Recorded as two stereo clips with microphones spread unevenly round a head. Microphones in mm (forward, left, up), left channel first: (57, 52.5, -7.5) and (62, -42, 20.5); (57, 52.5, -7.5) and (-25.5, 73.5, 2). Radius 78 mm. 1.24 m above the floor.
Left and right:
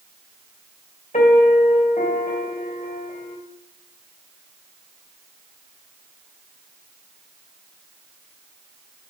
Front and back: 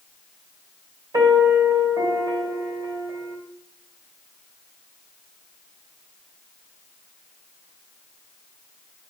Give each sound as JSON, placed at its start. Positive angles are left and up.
{"t": 1.1, "sound": "a piano", "azimuth_deg": 135, "distance_m": 2.5}